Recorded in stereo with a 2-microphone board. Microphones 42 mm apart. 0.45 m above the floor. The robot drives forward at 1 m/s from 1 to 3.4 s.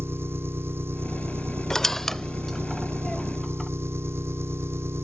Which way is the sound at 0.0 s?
75° right (ahead or behind).